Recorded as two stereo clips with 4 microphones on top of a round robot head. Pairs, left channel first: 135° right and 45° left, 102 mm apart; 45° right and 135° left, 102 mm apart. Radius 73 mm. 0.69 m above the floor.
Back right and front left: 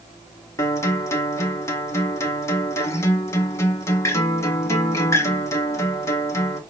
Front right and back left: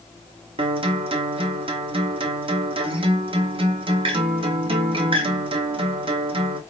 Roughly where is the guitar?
Behind.